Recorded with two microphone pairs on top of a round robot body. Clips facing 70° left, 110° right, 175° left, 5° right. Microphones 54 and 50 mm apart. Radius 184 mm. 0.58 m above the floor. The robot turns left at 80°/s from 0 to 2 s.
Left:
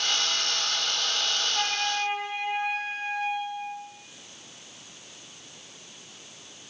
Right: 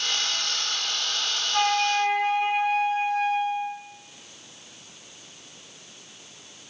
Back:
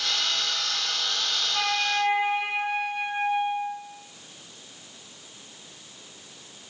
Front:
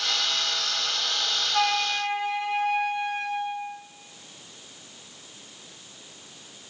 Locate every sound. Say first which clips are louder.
1.5 s a flute: right 10 dB, front 1 dB; 85° right, 0.5 m; by 3.8 s 120° right, 0.5 m